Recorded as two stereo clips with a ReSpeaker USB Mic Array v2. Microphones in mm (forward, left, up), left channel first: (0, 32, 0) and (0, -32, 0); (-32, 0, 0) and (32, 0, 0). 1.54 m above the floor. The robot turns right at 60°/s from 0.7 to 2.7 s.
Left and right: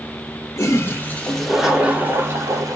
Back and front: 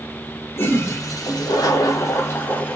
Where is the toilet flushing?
130° left, 1.3 m; by 2.8 s 110° right, 1.3 m.